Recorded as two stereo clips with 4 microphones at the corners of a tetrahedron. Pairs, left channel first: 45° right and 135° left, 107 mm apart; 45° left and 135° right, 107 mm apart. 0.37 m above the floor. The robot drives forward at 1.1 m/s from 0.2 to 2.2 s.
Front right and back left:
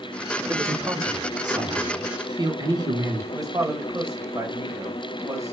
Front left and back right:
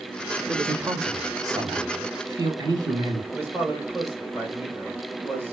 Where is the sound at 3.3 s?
165° left, 1.7 m.